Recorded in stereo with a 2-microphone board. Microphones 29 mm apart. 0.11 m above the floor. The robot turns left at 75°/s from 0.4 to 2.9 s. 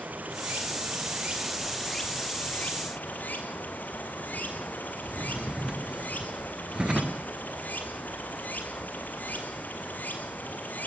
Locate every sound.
0.0 s running water: 70° right, 2.5 m; by 10.9 s 100° left, 2.5 m
5.0 s a drawer: 30° right (ahead or behind), 1.3 m